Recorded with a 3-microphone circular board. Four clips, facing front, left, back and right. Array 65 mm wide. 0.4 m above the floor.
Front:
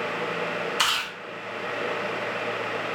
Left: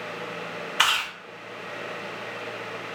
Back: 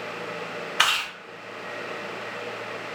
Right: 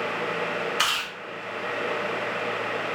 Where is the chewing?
135° left, 1.2 m.